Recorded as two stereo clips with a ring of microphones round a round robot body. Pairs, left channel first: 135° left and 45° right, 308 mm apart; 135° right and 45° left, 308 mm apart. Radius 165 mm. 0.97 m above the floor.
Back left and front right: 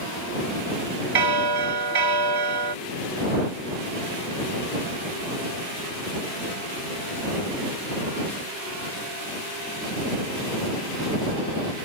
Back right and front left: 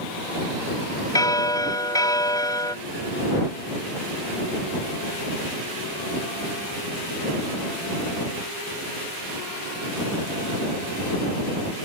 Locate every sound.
1.1 s a bell: 55° right